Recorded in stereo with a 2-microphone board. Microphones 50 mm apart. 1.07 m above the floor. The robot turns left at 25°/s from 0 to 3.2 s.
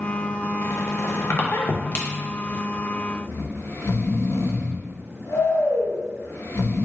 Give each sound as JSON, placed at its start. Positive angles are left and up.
{"t": 0.6, "sound": "a squeak", "side_deg": 70, "distance_m": 0.6}
{"t": 3.3, "sound": "snoring", "side_deg": 60, "distance_m": 0.6}